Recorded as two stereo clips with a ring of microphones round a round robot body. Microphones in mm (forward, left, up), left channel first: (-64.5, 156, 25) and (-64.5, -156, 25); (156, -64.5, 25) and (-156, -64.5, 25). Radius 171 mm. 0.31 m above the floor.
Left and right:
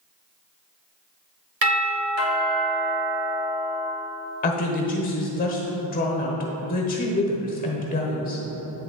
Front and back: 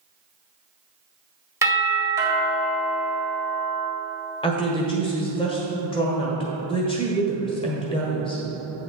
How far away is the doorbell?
About 2.0 m.